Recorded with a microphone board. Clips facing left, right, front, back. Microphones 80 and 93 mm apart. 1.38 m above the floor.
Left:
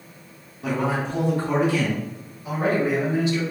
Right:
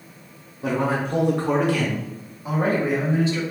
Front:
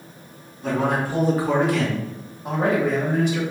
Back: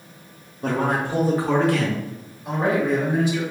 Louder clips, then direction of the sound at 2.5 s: Even, even; 30° right.